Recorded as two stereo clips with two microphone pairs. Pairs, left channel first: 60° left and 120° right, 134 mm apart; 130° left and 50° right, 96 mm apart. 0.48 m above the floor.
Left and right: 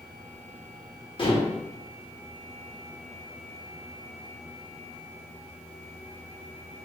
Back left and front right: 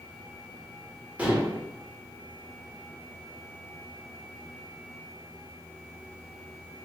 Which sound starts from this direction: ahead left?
Dishes clattering, at 1.2 s.